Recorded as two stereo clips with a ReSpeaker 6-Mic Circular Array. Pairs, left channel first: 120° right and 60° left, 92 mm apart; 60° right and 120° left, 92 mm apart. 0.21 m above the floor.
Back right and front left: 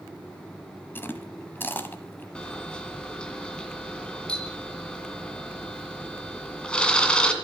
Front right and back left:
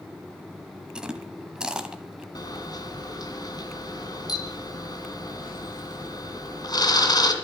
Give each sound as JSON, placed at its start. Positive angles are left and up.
{"t": 0.9, "sound": "chewing", "azimuth_deg": -165, "distance_m": 1.1}
{"t": 2.4, "sound": "a camera shutter", "azimuth_deg": -45, "distance_m": 1.8}